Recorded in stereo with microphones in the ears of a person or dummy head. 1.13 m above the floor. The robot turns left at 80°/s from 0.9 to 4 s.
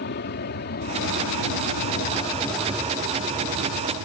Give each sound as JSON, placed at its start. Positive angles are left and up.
{"t": 0.0, "sound": "an aircraft", "side_deg": 45}